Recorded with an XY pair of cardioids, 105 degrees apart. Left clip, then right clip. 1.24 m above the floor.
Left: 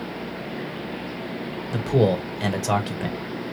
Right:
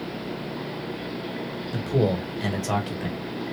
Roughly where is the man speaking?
Ahead left.